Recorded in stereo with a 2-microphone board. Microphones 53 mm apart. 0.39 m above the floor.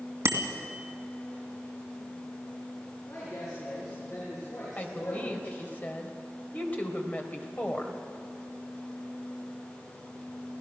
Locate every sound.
0.2 s a bicycle bell: 55° right (ahead or behind), 2 m
3.1 s a woman speaking: 70° left (ahead or behind), 7 m
4.8 s a woman speaking: 30° left (ahead or behind), 2 m